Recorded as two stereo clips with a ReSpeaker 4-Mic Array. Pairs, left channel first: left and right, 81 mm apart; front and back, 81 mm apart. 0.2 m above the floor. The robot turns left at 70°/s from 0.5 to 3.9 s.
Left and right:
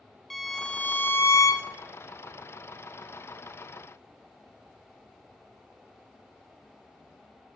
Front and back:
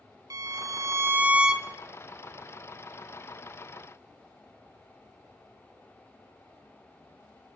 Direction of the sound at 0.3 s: 175° left.